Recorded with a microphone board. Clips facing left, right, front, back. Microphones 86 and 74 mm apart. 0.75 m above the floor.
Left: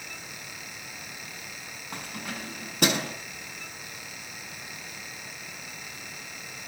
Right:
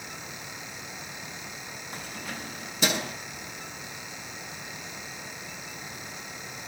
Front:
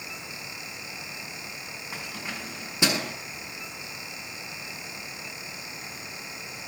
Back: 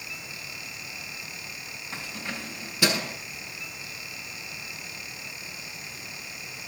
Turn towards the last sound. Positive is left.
turn(degrees=65)